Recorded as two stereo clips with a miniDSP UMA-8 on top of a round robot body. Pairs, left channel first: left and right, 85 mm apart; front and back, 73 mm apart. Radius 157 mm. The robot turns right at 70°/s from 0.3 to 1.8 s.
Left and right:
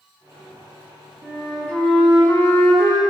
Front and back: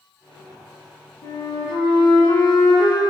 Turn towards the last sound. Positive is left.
turn(degrees=25)